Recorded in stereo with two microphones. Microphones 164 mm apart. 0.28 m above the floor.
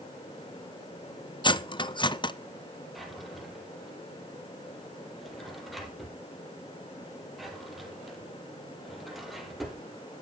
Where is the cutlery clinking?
30° left (ahead or behind), 0.6 m.